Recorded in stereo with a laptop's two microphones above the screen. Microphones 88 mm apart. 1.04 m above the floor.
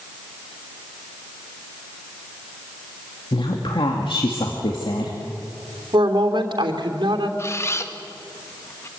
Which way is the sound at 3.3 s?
70° left (ahead or behind).